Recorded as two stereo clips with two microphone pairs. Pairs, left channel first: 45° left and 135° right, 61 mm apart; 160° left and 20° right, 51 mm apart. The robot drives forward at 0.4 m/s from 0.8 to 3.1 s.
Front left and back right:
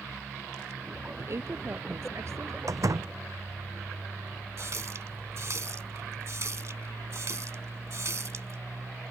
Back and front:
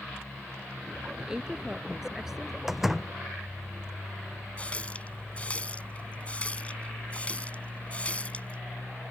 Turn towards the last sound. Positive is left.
turn(degrees=-145)